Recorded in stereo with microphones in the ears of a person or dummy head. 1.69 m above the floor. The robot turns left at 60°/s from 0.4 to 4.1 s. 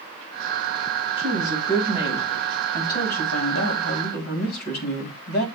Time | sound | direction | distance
1.2 | a woman speaking | 120° right | 3.5 m